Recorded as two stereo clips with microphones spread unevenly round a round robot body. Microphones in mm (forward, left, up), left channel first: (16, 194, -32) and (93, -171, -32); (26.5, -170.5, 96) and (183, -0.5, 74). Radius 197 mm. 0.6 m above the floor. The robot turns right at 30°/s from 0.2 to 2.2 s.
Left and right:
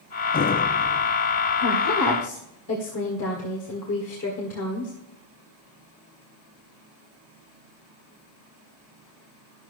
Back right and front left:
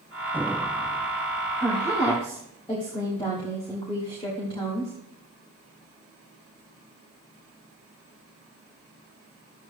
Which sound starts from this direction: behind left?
A woman speaking, at 1.6 s.